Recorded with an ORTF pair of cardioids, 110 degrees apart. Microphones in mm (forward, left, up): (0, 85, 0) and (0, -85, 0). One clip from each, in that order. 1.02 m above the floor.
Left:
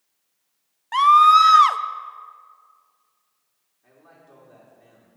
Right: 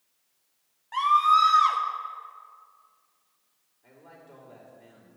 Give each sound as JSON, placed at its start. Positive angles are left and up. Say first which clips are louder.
{"t": 0.9, "sound": "a scream", "louder": "left 8 dB", "azimuth_deg": 55, "distance_m": 0.6}
{"t": 3.8, "sound": "a man speaking", "louder": "right 1 dB", "azimuth_deg": 10, "distance_m": 3.5}